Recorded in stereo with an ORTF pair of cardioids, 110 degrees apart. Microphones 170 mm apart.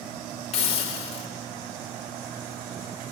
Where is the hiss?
40° left, 3 m.